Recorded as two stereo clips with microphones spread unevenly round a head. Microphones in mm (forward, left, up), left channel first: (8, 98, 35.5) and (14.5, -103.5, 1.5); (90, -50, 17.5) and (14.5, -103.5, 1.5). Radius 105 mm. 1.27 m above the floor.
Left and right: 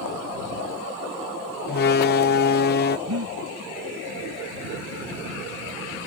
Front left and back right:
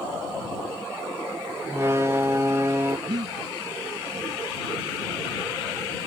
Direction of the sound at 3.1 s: 105° right.